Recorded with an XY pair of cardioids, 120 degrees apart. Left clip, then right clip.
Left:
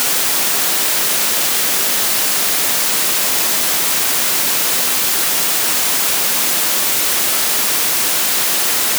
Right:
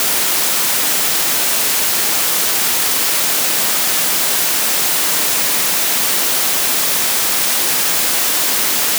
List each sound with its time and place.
Only background noise.